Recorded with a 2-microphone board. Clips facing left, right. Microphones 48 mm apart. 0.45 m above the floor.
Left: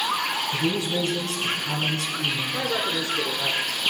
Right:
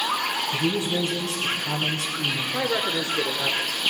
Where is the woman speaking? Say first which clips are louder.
Right 1 dB; 20° right (ahead or behind), 1.1 m.